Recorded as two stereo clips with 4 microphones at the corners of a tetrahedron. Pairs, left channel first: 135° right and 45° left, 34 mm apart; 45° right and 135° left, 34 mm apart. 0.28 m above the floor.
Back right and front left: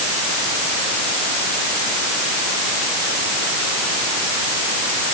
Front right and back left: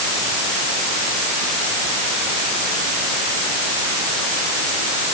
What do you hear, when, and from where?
Only background noise.